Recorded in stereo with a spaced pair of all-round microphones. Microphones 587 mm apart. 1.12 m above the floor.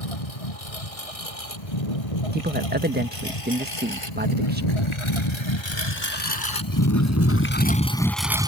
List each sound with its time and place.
0.0 s a lawn mower: 70° left (ahead or behind); by 8.5 s 10° right (ahead or behind)
2.3 s a man speaking: 15° right (ahead or behind)